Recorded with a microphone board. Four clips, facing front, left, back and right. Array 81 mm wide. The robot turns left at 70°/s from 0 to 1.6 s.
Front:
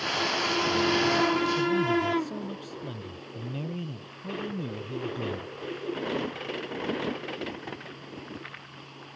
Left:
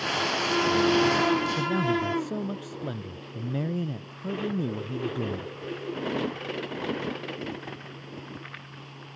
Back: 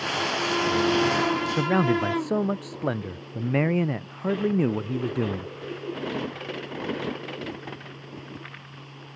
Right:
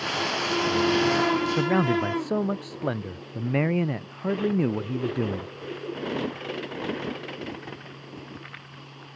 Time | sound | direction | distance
1.6 | a man speaking | 140° right | ?